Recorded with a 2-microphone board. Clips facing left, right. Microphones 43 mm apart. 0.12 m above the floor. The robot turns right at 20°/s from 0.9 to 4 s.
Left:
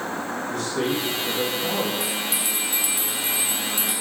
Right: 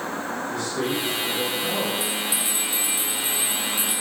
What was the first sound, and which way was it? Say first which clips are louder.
A man speaking: left 2 dB; 65° left (ahead or behind).